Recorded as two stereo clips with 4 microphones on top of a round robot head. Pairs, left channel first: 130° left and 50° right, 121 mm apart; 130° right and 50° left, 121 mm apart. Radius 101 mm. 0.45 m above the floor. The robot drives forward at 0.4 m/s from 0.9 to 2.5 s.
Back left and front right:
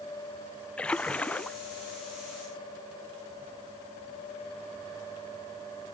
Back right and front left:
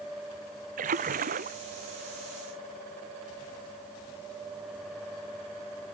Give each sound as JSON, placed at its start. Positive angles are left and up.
{"t": 0.8, "sound": "a splash", "azimuth_deg": 50}